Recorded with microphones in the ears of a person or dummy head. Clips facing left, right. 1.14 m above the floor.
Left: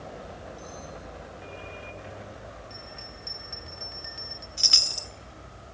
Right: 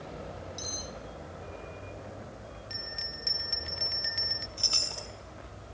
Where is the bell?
20° right (ahead or behind), 0.5 m.